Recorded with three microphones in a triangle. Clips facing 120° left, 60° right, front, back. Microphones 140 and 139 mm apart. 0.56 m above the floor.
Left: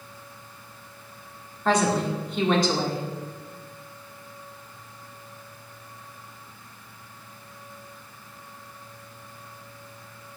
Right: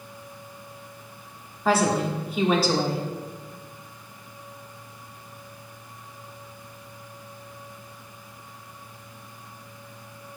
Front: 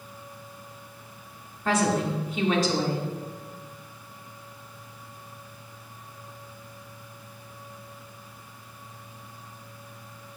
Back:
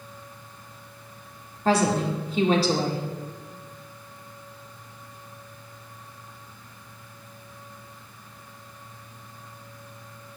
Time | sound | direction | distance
1.6 | a woman speaking | 140° right | 1.6 m